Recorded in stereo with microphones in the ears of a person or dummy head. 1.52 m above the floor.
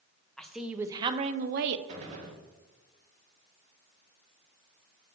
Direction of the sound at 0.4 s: 5° left (ahead or behind).